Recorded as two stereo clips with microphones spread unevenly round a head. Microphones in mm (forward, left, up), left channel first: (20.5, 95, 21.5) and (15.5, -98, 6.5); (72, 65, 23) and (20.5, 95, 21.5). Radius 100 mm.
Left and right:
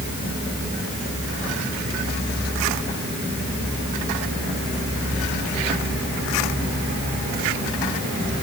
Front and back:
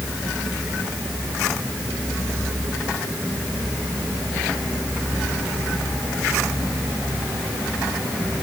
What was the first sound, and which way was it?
Only background noise.